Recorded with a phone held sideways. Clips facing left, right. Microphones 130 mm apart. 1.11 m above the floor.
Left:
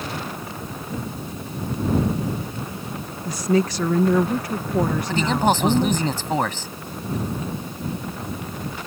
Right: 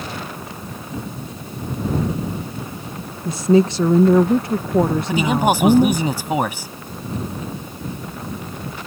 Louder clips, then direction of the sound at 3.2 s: Right 6 dB; 25° right (ahead or behind).